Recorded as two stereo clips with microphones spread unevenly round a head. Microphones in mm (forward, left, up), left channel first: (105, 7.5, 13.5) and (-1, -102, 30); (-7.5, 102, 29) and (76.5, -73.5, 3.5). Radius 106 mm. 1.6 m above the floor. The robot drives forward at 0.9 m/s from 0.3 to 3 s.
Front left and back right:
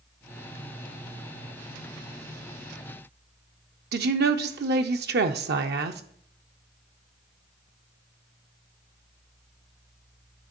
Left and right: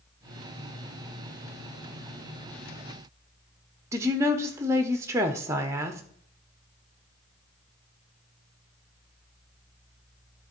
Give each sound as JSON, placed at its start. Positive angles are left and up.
{"t": 3.9, "sound": "a woman speaking", "azimuth_deg": -145, "distance_m": 0.6}